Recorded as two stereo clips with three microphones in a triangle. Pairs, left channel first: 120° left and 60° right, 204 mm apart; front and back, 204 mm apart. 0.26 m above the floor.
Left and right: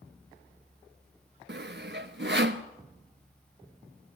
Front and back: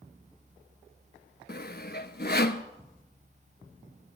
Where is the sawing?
35° right, 0.9 m.